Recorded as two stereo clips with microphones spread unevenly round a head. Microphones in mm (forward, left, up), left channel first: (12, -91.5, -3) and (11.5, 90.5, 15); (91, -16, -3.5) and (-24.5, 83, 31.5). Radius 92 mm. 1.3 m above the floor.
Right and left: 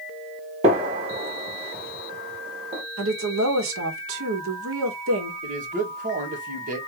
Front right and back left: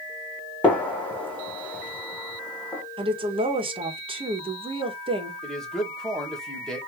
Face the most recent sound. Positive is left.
turn(degrees=45)